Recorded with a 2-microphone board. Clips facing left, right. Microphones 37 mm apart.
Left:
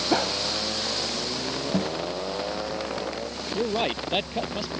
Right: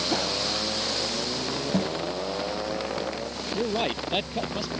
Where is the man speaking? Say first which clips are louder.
Left 1 dB; 5° left (ahead or behind).